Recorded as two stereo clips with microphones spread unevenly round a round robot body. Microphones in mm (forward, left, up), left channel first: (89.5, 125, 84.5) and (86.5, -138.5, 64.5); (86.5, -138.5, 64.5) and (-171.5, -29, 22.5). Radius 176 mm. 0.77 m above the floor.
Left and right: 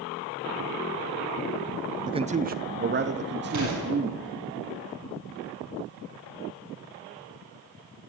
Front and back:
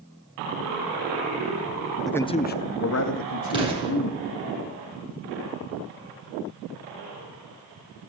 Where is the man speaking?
135° right, 0.6 m; by 4.3 s 40° right, 1.6 m.